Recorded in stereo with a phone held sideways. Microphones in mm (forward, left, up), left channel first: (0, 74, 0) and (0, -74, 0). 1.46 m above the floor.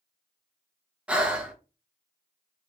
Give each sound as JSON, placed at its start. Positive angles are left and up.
{"t": 1.1, "sound": "breathing", "side_deg": -10, "distance_m": 0.7}